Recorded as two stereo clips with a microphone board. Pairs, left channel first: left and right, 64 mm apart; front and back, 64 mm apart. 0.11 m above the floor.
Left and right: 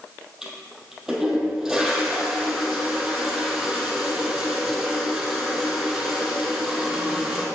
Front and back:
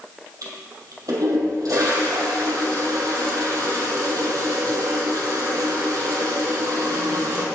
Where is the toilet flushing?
170° right, 2.5 m.